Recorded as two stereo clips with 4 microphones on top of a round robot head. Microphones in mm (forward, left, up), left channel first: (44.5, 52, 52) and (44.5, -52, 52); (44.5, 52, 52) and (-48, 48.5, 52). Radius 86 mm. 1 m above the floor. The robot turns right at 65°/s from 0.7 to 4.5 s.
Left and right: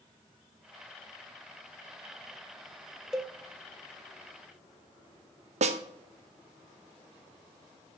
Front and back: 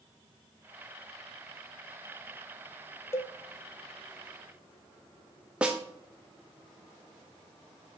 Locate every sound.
3.1 s a cowbell: 10° right, 0.8 m; by 3.4 s 5° left, 0.8 m
5.6 s a snare drum: 95° right, 0.7 m